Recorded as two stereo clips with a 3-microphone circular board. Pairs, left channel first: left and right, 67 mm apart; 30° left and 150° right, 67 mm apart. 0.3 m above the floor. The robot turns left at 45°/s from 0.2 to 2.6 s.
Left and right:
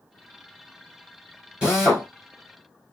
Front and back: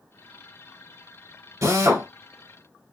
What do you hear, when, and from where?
1.6 s a drill: 165° right, 2.5 m; by 2.1 s 175° left, 2.5 m